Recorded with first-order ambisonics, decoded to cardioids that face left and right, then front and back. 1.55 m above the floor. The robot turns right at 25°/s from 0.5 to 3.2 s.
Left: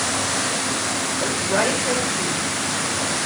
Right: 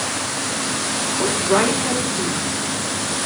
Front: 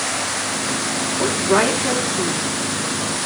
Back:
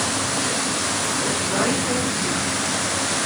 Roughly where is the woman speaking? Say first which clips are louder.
Right 4 dB, front 9 dB; ahead right.